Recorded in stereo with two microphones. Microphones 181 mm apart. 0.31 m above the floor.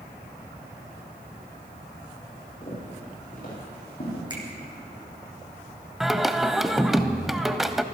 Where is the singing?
Centre (ahead or behind), 0.6 m.